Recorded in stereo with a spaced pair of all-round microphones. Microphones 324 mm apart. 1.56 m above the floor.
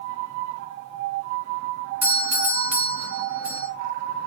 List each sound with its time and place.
2.0 s a doorbell: 60° right (ahead or behind), 1.1 m